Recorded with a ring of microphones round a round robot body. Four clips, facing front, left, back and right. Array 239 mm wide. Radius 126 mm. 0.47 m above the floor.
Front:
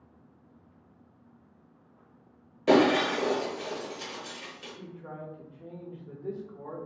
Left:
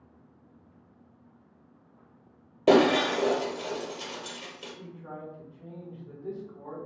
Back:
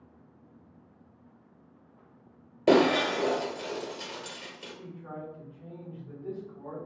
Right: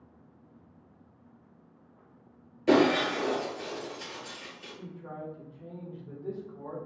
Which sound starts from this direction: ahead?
A man speaking, at 4.8 s.